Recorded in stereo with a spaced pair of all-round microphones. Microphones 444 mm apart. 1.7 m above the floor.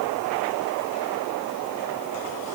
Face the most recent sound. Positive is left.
No sound to turn to.